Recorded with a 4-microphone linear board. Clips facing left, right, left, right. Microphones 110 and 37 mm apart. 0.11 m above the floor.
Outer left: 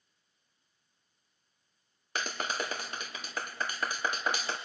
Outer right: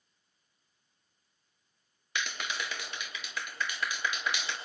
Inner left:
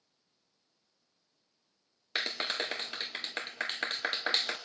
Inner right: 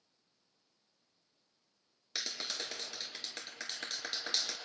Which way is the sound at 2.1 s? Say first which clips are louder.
Outer left 2 dB, inner left 7 dB; 40° left (ahead or behind).